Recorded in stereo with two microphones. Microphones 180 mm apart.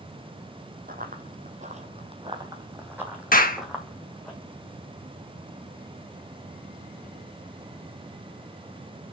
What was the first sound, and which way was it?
Running footsteps, 55° right (ahead or behind).